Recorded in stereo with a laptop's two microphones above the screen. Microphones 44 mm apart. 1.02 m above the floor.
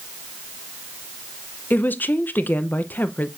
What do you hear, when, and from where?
1.7 s a woman speaking: 45° left (ahead or behind), 0.6 m